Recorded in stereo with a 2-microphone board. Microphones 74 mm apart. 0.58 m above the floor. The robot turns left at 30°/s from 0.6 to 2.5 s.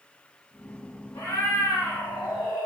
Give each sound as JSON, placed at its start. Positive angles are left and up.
{"t": 1.1, "sound": "a cat meowing", "azimuth_deg": 130, "distance_m": 1.2}